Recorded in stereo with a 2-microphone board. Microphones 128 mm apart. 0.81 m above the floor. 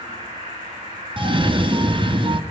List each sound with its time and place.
0.0 s an insect: 35° right (ahead or behind), 8 m
1.2 s a cough: 40° right (ahead or behind), 1.0 m